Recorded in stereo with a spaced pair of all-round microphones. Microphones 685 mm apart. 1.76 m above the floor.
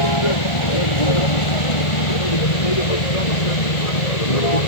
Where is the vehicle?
40° left (ahead or behind); by 4.7 s 60° left (ahead or behind).